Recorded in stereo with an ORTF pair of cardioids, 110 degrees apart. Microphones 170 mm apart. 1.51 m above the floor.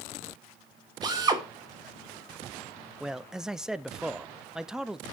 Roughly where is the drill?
Ahead right.